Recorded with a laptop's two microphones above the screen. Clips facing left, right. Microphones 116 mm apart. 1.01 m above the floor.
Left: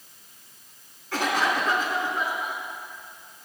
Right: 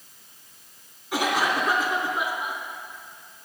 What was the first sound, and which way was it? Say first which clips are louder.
A cough: right 1 dB; 20° right (ahead or behind).